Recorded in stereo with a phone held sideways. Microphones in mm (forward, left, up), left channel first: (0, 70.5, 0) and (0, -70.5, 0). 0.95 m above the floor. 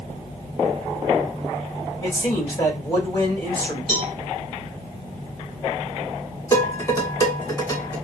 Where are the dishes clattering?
25° left (ahead or behind), 1.4 m.